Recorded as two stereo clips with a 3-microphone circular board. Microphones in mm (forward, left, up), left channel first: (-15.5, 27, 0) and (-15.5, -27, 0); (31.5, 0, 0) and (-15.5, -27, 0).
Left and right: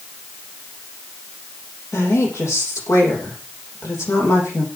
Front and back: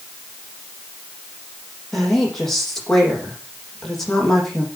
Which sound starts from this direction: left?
A woman speaking, at 1.9 s.